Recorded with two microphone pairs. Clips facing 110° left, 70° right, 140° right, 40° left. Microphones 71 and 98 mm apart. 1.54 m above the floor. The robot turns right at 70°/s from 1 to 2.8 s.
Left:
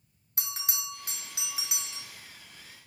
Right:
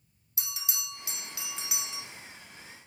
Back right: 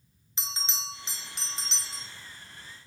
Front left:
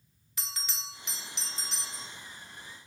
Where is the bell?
155° left, 0.6 m; by 2.0 s 135° right, 0.6 m.